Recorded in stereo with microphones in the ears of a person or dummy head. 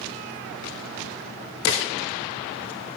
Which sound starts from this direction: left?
A snare drum, at 1.7 s.